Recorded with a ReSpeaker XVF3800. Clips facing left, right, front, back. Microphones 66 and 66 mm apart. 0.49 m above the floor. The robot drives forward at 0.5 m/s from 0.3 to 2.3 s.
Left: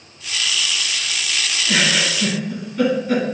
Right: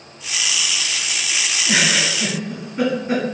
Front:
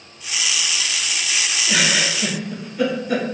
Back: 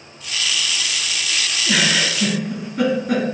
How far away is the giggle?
About 1.3 m.